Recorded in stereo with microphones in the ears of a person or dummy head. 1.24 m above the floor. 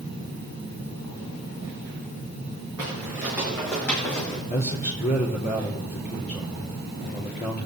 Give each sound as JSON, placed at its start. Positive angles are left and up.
{"t": 2.8, "sound": "footsteps", "side_deg": -15, "distance_m": 4.0}
{"t": 4.5, "sound": "a man speaking", "side_deg": 45, "distance_m": 3.5}